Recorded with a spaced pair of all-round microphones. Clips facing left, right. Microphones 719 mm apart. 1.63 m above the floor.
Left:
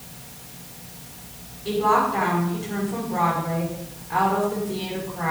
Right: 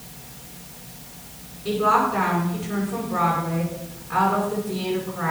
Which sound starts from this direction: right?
A woman speaking, at 1.6 s.